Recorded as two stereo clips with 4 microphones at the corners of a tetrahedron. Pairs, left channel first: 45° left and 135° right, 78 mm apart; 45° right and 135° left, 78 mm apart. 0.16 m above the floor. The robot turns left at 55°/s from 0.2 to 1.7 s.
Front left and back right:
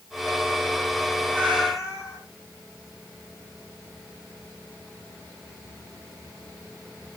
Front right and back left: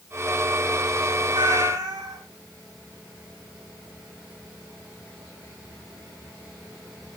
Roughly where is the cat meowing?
Behind left.